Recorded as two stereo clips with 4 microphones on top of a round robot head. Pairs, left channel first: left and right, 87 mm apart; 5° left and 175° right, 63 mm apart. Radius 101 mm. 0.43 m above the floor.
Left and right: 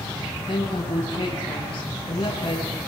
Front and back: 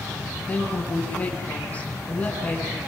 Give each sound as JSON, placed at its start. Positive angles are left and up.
{"t": 0.5, "sound": "a woman speaking", "azimuth_deg": 70, "distance_m": 7.0}